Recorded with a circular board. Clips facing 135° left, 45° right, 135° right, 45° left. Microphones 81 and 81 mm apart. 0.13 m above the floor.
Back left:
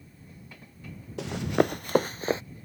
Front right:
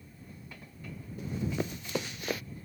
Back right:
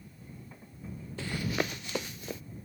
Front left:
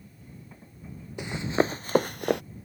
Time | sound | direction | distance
1.2 | running footsteps | 120° left | ?